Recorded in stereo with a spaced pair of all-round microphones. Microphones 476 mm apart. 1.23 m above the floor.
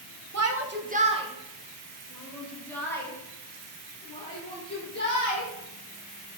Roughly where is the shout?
Right.